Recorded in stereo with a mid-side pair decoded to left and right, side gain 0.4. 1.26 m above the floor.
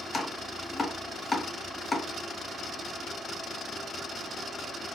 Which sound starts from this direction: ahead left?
Chopping, at 0.1 s.